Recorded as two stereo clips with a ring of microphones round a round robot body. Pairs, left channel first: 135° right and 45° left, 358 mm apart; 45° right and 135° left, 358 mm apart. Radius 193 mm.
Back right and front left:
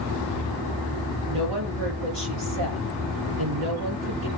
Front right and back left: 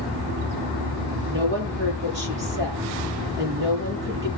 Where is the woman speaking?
75° left, 8.5 m.